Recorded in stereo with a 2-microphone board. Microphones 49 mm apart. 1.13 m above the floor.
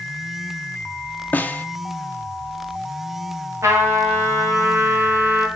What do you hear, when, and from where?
1.3 s a snare drum: 35° left (ahead or behind), 0.5 m
3.6 s a trumpet: 65° right (ahead or behind), 2 m